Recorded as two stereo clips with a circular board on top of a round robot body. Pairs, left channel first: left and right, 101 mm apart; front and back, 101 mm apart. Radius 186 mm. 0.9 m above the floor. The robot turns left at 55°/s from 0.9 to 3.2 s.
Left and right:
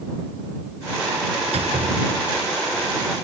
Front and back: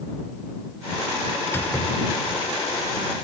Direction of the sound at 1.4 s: 65° right.